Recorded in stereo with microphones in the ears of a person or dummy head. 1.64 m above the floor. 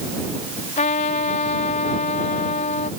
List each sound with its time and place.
0.8 s a trumpet: 35° left (ahead or behind)